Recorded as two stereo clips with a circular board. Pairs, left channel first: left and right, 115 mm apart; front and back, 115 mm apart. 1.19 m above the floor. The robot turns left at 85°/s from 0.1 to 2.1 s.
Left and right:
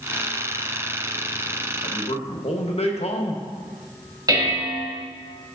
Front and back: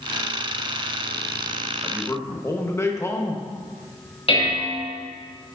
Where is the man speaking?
90° left, 1.2 m; by 3.4 s 65° left, 1.2 m.